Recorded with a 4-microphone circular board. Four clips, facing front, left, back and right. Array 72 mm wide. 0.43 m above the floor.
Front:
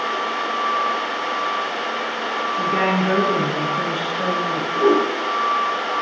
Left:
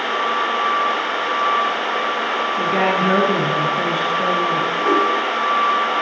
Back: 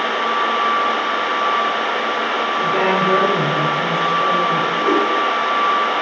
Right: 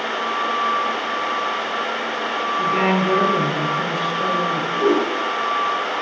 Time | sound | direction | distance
2.6 | a woman speaking | 50° left | 5 m
4.8 | a whoosh | 35° right | 8 m